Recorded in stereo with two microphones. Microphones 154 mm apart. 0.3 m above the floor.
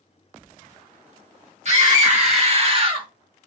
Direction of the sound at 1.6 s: 50° right (ahead or behind).